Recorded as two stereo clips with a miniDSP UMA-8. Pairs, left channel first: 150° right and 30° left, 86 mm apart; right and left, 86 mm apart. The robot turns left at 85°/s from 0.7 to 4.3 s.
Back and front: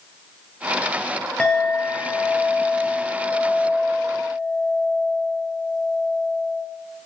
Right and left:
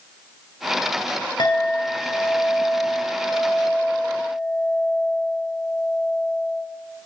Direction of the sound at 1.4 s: 75° right.